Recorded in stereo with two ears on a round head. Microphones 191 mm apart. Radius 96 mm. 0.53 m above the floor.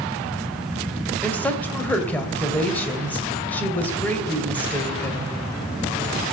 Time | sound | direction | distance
1.2 | a woman speaking | 10° left (ahead or behind) | 2.0 m